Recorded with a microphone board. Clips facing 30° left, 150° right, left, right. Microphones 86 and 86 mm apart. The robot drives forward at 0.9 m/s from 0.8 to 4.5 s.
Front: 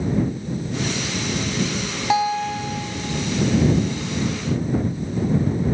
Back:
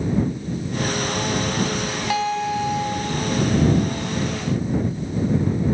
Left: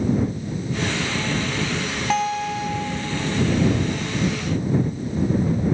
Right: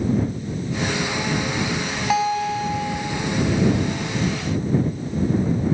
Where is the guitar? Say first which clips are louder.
Front 3 dB, right 2 dB; 15° right, 0.6 m; by 3.5 s 175° right, 1.0 m.